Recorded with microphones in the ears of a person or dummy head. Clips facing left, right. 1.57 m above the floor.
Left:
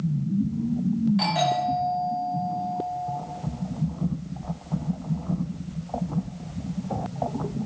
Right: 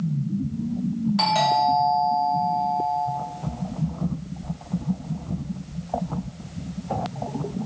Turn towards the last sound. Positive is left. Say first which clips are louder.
# right 2 dB
turn(degrees=-65)  # may be behind; listen again after turning